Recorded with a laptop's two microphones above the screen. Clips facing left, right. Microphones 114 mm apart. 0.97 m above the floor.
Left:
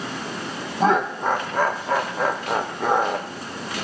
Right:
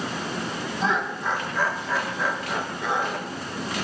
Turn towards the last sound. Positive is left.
turn(degrees=50)  # may be behind; listen again after turning